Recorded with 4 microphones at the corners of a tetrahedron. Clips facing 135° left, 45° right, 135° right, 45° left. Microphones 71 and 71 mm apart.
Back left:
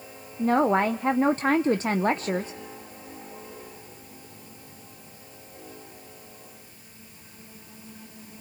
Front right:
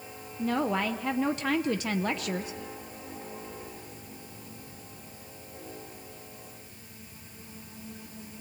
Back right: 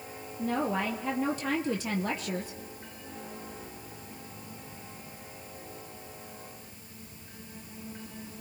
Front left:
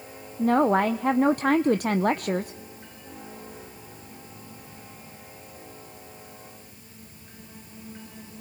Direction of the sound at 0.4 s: 80° left.